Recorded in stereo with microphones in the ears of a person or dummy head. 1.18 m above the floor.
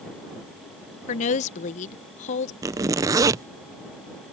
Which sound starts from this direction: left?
A woman speaking, at 1.1 s.